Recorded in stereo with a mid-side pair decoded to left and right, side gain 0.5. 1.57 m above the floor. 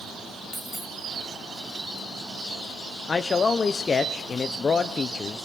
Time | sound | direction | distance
0.5 | a dropped coin | 5° right | 3.5 m
3.1 | a man speaking | 35° left | 0.8 m